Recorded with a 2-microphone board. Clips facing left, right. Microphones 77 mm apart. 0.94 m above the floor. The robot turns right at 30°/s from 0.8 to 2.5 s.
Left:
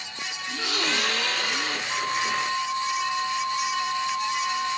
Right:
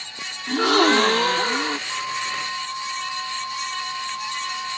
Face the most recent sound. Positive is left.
turn(degrees=15)  # may be behind; listen again after turning